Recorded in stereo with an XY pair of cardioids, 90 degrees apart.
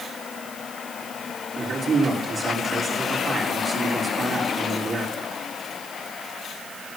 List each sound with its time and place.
1.6 s a man speaking: 55° right, 4.5 m